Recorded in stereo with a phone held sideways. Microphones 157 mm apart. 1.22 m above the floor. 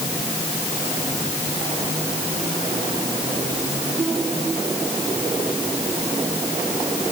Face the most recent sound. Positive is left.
No sound to turn to.